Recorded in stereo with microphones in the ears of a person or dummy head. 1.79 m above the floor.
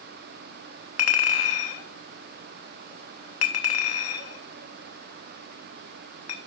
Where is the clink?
40° left (ahead or behind), 1.2 m.